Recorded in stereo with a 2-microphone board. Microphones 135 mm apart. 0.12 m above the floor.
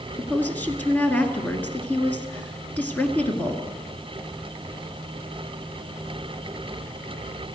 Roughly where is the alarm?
I don't hear an alarm.